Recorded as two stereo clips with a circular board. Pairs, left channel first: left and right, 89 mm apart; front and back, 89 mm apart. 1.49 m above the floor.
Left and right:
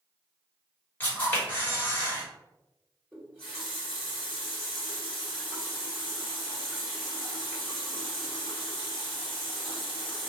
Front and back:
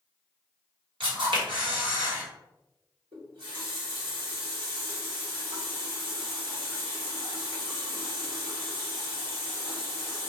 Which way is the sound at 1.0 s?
160° left.